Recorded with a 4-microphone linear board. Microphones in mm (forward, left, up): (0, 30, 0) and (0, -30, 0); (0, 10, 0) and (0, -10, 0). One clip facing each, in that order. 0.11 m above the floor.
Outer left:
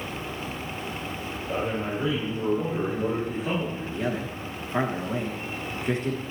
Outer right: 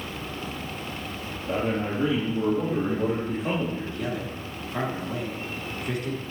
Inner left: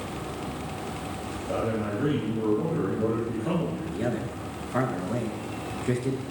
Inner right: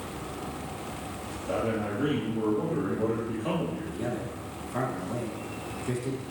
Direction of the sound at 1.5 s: 45° right (ahead or behind).